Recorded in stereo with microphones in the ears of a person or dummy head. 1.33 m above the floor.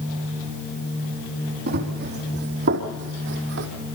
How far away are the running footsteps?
About 4.5 m.